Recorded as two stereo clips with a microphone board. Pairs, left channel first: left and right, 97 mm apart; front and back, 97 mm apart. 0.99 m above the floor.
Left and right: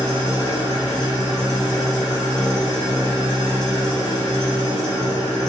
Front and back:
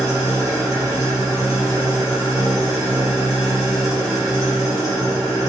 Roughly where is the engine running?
Behind right.